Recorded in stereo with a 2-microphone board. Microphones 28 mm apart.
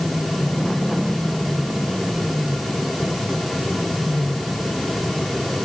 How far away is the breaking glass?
I don't hear breaking glass.